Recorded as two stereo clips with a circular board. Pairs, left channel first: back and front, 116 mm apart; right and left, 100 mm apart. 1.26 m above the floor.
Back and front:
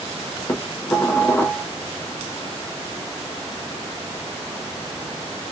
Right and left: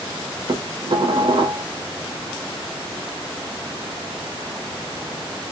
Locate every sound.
0.5 s dishes clattering: 110° left, 0.5 m